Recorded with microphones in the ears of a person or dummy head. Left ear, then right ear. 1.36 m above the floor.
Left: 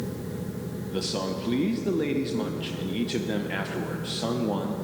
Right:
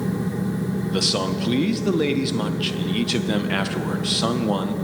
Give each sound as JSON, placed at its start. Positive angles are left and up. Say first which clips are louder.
{"t": 0.9, "sound": "a man speaking", "louder": "right 7 dB", "side_deg": -30, "distance_m": 0.7}